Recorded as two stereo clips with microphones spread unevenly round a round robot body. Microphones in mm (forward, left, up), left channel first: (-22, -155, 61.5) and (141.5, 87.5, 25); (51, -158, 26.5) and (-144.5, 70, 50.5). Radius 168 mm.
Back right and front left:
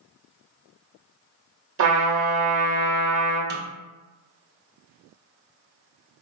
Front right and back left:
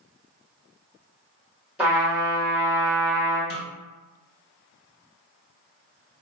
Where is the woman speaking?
No woman speaking in this recording.